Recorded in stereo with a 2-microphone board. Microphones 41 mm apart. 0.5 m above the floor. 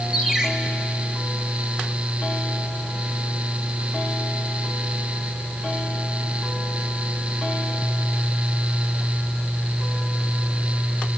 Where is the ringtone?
15° right (ahead or behind), 3 m.